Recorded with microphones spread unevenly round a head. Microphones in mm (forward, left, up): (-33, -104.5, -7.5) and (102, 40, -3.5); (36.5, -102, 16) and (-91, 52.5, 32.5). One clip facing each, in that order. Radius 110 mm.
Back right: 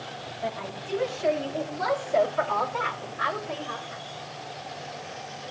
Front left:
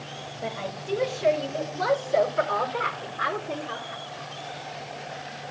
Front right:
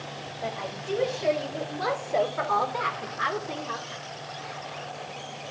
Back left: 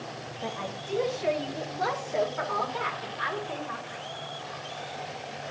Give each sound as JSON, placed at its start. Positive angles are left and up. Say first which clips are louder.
{"t": 0.4, "sound": "a woman speaking", "louder": "front left 1 dB, front right 2 dB", "azimuth_deg": 15, "distance_m": 6.5}